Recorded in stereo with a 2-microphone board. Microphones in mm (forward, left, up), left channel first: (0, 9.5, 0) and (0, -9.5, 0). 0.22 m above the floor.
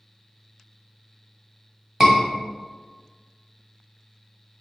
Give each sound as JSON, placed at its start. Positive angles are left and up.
{"t": 2.0, "sound": "a scream", "side_deg": -25, "distance_m": 1.3}